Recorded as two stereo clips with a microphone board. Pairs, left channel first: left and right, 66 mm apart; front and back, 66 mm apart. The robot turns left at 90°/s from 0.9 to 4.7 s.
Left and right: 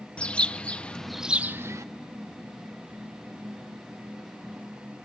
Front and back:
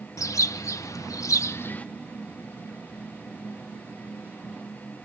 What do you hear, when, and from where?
0.2 s a bird: 20° left, 0.8 m; by 1.9 s 65° right, 0.8 m